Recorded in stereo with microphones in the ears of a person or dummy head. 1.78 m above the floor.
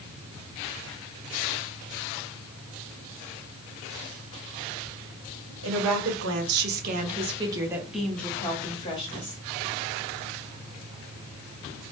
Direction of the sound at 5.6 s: 75° right (ahead or behind).